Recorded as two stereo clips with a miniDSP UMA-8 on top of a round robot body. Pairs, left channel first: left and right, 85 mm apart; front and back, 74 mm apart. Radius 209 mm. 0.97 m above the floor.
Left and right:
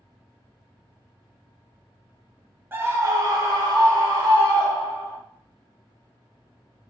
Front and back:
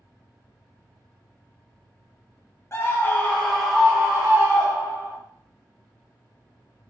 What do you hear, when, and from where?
2.7 s a scream: 35° right, 0.9 m; by 5.2 s 125° right, 1.4 m